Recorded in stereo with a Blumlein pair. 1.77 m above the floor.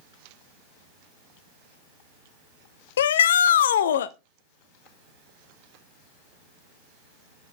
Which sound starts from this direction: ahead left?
A shout, at 3.0 s.